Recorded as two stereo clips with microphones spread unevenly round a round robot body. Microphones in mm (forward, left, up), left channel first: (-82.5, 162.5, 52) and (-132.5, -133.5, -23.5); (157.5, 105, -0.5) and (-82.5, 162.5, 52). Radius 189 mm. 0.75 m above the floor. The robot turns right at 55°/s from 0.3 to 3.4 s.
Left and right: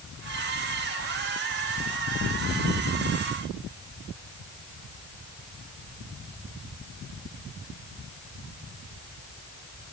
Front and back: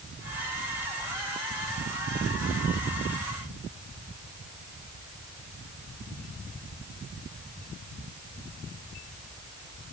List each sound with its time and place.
Only background noise.